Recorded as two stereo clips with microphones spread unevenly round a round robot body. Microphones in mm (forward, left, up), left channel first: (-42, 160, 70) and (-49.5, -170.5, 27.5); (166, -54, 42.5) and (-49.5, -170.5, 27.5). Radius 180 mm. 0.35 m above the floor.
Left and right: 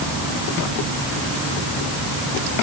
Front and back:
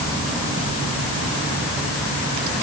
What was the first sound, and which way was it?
Only background noise.